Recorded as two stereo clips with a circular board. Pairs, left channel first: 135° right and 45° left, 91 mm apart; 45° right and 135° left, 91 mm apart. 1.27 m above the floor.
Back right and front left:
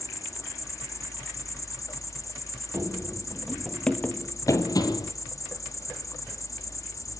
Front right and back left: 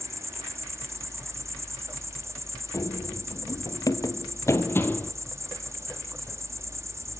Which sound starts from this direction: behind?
An insect, at 0.0 s.